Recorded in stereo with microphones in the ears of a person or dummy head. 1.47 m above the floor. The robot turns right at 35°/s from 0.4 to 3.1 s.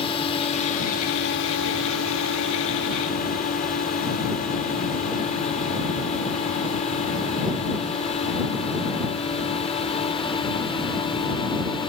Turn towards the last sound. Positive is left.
turn(degrees=25)  # may be behind; listen again after turning